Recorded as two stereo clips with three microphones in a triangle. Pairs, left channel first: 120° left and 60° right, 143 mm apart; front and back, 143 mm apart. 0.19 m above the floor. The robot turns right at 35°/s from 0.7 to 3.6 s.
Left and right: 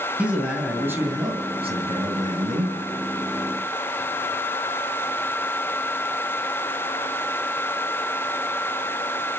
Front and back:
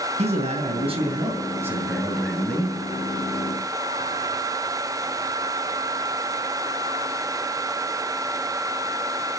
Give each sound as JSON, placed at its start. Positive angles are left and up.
{"t": 0.2, "sound": "a man speaking", "azimuth_deg": -140, "distance_m": 2.5}